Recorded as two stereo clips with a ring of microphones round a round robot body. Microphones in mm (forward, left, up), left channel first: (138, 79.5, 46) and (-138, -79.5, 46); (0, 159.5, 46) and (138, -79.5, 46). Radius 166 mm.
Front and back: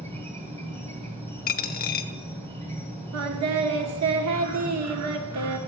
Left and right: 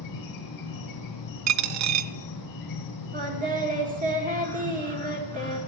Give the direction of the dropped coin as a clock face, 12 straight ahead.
1 o'clock.